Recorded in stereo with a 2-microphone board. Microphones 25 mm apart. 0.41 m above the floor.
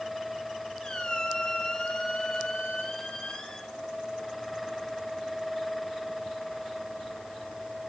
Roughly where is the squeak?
Left.